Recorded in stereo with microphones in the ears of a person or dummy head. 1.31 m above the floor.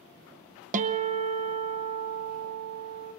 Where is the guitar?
40° right (ahead or behind), 0.6 m.